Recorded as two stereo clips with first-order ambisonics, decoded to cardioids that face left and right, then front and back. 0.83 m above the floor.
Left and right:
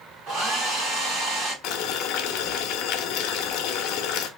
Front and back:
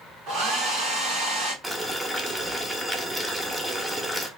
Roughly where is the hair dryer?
Behind right.